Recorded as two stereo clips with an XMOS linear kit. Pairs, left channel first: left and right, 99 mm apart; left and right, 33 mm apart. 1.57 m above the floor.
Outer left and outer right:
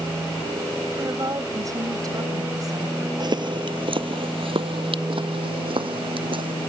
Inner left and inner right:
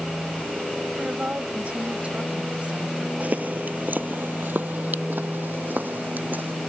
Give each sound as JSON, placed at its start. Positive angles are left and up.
{"t": 0.9, "sound": "a woman speaking", "side_deg": -35}
{"t": 3.2, "sound": "footsteps", "side_deg": -45}